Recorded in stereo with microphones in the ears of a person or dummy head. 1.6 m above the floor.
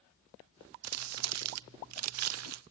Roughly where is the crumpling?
Right.